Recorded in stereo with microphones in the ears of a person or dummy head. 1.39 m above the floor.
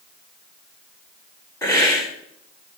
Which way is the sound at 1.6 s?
15° left (ahead or behind).